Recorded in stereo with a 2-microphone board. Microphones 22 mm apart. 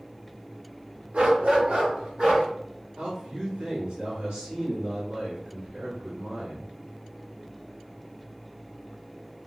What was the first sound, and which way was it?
A dog barking, 65° right (ahead or behind).